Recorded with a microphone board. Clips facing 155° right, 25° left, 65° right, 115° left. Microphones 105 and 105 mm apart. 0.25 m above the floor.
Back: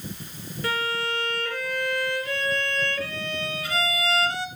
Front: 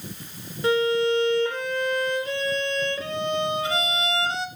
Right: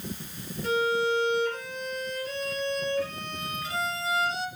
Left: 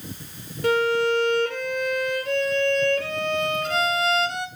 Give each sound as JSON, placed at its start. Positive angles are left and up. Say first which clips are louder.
{"t": 0.6, "sound": "a violin", "louder": "front 8 dB, left 5 dB", "azimuth_deg": 90, "distance_m": 1.8}